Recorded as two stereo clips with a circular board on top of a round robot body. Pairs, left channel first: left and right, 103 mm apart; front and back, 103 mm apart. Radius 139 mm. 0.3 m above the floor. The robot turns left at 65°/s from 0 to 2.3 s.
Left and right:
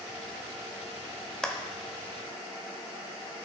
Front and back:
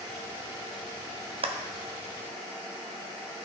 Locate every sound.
1.4 s a clap: 175° left, 1.1 m; by 1.6 s 165° left, 1.1 m